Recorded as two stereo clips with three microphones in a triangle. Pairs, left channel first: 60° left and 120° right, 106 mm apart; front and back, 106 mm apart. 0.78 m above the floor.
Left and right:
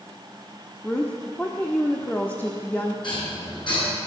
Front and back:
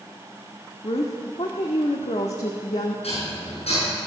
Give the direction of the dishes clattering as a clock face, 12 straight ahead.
11 o'clock.